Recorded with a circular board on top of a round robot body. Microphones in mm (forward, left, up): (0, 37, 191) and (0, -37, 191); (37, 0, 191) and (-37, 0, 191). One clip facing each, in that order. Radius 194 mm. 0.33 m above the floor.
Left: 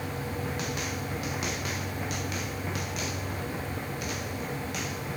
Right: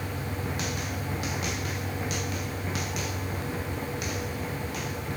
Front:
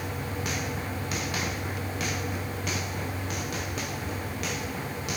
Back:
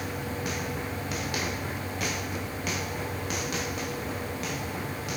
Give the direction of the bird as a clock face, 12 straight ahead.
I don't hear a bird.